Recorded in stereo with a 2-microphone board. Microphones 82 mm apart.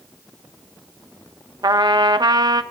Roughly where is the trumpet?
Right.